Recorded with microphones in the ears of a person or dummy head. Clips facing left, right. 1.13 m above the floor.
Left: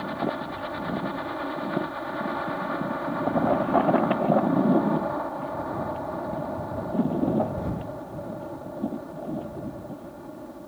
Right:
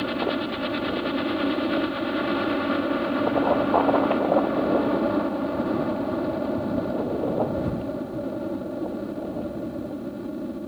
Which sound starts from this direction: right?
A helicopter, at 0.0 s.